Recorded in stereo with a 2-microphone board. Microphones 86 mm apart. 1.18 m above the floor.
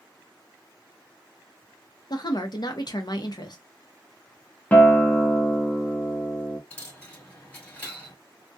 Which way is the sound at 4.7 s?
20° left (ahead or behind).